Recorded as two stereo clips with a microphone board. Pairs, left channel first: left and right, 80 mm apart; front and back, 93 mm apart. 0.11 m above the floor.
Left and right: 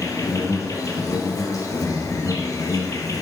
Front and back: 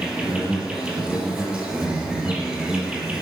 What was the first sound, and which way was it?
An insect, 100° left.